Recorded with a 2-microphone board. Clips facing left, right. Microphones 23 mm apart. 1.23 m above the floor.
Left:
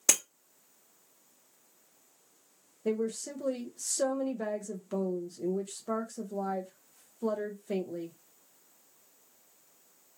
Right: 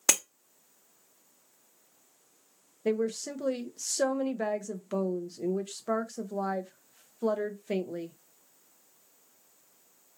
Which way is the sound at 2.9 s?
40° right (ahead or behind).